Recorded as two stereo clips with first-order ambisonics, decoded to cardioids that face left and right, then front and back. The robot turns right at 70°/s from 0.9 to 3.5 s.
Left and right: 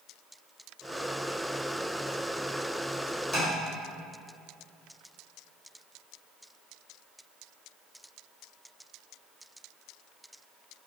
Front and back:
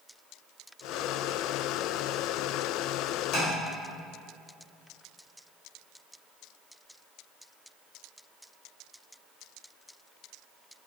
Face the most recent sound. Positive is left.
turn(degrees=10)